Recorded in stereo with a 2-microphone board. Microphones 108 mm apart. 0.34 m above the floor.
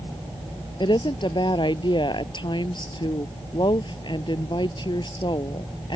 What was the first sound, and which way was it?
A woman speaking, 50° left (ahead or behind).